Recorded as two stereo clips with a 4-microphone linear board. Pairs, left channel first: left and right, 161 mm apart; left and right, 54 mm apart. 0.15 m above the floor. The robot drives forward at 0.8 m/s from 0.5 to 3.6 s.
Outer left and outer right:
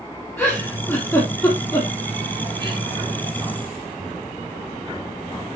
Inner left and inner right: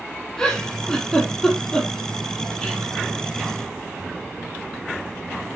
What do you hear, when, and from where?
0.4 s a giggle: 10° left (ahead or behind), 5 m; by 2.8 s 20° left (ahead or behind), 3.5 m